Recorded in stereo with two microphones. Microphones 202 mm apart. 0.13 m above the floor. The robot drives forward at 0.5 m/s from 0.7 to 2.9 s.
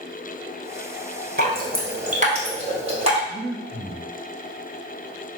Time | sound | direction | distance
1.4 | dripping | 50° right (ahead or behind) | 0.9 m
3.3 | breathing | 15° right (ahead or behind) | 1.9 m